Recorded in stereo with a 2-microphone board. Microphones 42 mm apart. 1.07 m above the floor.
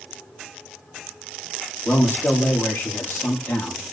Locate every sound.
1.9 s a man speaking: 60° left (ahead or behind), 2.5 m